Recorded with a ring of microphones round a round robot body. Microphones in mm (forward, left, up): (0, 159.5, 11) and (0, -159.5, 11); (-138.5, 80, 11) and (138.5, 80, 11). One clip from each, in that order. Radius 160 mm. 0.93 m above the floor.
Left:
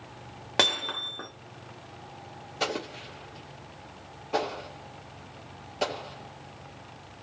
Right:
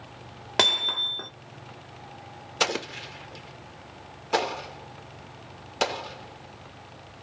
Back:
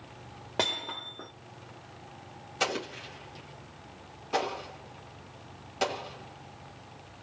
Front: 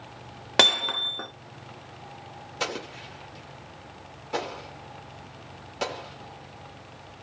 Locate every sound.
0.6 s hammering: 10° right, 1.7 m
2.6 s an explosion: 95° right, 1.5 m